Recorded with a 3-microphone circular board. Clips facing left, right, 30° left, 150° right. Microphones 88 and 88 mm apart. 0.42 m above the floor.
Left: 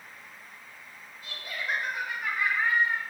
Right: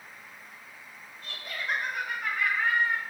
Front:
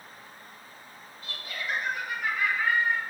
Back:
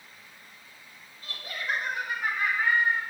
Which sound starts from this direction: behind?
Laughter, at 1.2 s.